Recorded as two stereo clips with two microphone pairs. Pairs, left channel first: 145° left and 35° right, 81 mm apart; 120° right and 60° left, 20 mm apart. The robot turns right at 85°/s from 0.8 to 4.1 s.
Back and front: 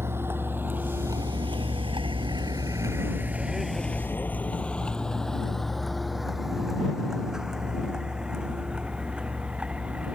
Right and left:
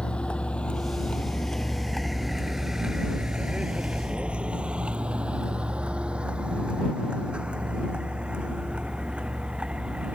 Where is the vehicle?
95° right; by 10.2 s 45° left.